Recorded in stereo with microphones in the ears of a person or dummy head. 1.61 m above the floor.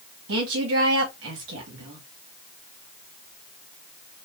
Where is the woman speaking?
75° right (ahead or behind), 2 m.